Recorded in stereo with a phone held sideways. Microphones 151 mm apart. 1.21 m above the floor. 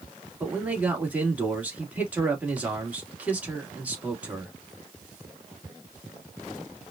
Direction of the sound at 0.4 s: 10° right (ahead or behind).